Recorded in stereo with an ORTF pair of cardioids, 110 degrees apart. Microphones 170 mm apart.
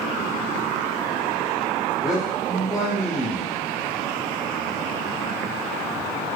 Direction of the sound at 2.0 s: Straight ahead.